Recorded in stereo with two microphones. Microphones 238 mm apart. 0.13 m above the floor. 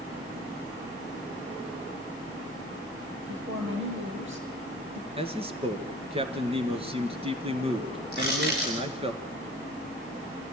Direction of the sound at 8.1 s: 45° right (ahead or behind).